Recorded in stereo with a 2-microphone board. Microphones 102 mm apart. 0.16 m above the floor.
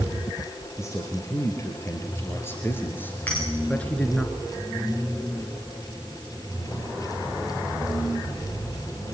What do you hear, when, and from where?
0.8 s a man speaking: 30° left (ahead or behind), 4 m; by 4.3 s 10° left (ahead or behind), 2.0 m
3.3 s a clink: 20° left (ahead or behind), 8.5 m